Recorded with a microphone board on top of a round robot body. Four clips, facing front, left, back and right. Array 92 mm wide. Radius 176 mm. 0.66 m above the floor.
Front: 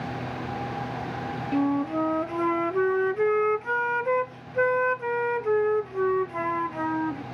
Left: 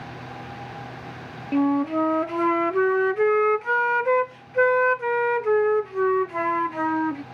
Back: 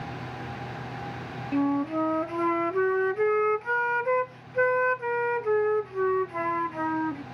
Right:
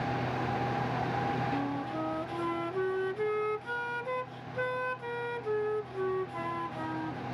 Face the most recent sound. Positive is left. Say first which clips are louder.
# left 12 dB, even
turn(degrees=95)